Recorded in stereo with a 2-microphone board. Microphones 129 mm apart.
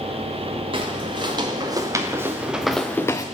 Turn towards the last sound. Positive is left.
turn(degrees=30)  # may be behind; listen again after turning